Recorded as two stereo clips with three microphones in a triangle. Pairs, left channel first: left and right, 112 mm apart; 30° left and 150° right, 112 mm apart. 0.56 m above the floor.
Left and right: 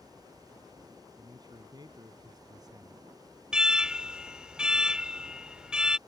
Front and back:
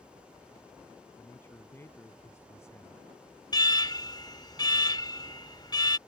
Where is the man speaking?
40° right; by 3.0 s 35° right.